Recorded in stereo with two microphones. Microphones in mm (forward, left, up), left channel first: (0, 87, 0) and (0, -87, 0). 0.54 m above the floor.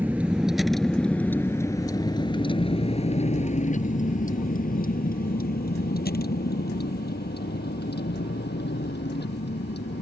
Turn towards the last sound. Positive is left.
turn(degrees=80)